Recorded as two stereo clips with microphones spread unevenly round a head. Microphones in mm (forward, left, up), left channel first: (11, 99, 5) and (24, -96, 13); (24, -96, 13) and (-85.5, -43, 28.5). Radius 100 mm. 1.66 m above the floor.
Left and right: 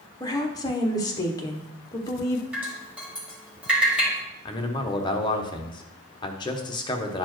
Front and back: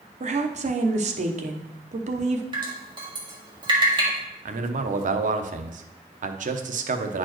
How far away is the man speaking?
About 0.8 m.